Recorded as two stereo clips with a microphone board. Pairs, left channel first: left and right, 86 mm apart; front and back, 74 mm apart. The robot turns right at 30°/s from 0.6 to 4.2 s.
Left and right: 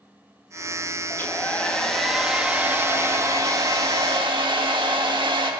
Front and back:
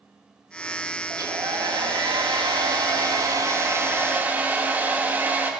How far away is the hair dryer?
About 1.7 m.